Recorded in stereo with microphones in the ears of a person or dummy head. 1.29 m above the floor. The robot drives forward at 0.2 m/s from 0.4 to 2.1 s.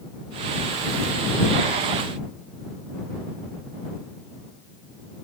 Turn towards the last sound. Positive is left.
No sound to turn to.